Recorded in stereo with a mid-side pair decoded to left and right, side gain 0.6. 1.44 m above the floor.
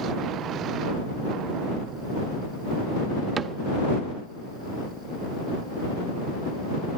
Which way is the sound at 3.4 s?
40° right.